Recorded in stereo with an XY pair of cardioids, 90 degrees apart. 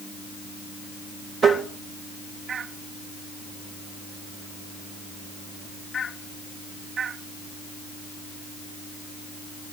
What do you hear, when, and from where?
1.4 s tapping: 55° right, 2 m